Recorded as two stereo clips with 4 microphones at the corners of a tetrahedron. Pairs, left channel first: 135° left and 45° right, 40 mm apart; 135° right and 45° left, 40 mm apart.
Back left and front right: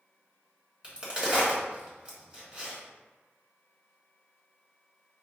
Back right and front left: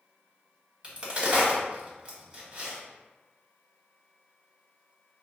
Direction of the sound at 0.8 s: Straight ahead.